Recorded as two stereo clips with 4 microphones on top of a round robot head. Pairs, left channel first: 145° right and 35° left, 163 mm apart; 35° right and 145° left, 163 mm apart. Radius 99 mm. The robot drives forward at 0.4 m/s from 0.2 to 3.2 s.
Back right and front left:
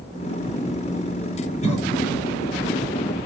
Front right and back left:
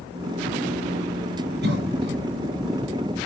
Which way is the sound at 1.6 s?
165° left.